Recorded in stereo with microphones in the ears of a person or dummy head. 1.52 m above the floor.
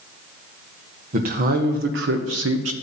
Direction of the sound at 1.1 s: 40° right (ahead or behind).